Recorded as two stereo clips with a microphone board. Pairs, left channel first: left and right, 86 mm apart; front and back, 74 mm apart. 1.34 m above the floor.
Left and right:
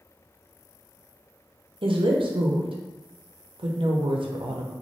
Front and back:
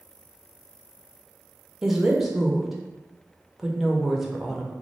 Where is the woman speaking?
95° right, 0.6 m.